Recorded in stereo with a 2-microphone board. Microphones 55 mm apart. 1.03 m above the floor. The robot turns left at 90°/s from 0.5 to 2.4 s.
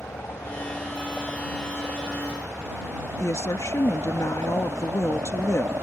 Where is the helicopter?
70° left; by 5.8 s 100° right.